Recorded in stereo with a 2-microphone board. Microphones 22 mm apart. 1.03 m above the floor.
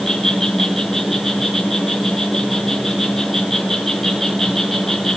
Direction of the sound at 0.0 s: 10° left (ahead or behind).